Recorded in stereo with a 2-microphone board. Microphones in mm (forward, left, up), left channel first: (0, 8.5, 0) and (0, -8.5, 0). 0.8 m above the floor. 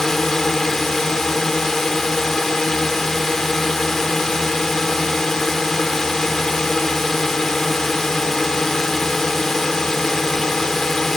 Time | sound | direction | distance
0.0 | a drone | 30° left (ahead or behind) | ?